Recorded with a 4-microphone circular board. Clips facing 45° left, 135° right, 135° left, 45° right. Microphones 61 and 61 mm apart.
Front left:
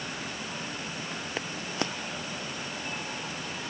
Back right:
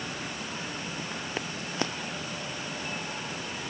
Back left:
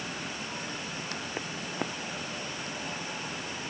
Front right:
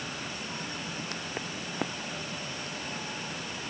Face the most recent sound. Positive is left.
No sound to turn to.